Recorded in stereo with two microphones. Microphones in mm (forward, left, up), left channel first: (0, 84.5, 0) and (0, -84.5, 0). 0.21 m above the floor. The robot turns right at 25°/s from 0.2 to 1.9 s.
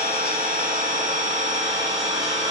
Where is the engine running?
80° right, 0.7 m; by 2.5 s 40° right, 0.7 m.